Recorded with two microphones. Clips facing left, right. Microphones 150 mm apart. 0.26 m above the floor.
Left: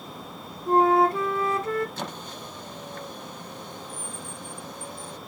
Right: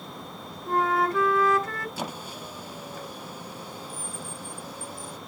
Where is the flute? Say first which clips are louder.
Left 6 dB; 30° left (ahead or behind), 1.4 m.